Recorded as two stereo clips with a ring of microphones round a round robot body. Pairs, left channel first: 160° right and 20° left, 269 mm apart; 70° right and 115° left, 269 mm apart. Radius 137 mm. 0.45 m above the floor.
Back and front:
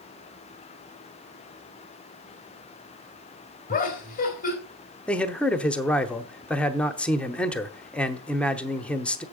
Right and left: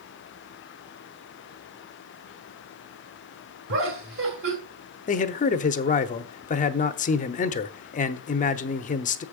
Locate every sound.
3.7 s laughter: 145° left, 1.9 m
5.1 s a man speaking: 75° right, 0.8 m